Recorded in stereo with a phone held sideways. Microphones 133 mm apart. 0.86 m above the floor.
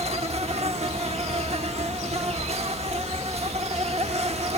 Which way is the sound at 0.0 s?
50° right (ahead or behind).